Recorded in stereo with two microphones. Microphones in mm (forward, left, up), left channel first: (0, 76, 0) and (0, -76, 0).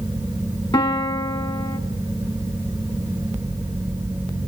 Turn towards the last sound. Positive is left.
turn(degrees=30)  # may be behind; listen again after turning